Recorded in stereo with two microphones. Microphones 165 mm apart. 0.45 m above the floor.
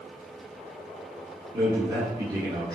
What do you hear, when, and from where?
1.5 s a man speaking: 25° right (ahead or behind), 1.2 m